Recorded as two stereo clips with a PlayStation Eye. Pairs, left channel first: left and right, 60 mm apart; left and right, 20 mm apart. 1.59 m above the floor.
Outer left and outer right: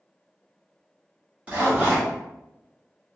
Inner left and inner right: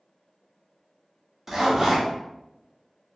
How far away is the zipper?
About 1.4 m.